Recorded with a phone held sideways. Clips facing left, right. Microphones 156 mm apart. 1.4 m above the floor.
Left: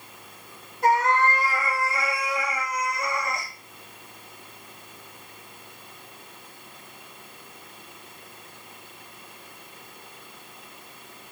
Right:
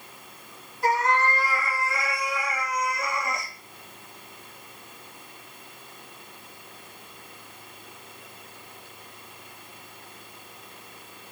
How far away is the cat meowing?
About 2.0 m.